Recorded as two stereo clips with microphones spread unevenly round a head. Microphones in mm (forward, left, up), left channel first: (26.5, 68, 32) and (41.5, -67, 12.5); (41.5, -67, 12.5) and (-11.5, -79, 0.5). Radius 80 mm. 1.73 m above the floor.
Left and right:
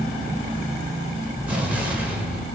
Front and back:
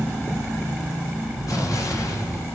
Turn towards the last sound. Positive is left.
turn(degrees=0)